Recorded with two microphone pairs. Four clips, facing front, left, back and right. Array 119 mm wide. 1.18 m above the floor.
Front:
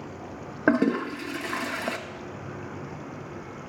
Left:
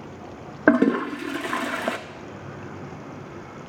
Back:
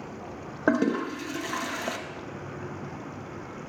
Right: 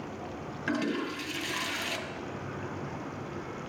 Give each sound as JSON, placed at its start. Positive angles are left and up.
{"t": 0.7, "sound": "a toilet flushing", "azimuth_deg": 90, "distance_m": 0.5}